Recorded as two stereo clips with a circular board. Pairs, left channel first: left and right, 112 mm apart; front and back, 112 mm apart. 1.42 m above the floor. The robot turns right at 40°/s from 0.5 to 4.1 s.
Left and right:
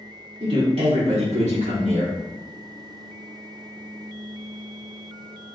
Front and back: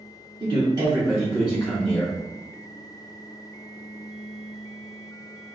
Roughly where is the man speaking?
Behind right.